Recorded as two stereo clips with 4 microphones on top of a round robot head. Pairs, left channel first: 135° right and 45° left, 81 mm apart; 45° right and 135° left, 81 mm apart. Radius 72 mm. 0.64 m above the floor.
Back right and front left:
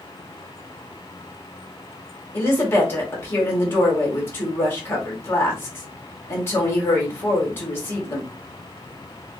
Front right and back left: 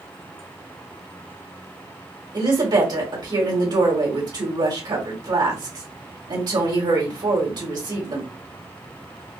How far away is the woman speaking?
About 1.9 m.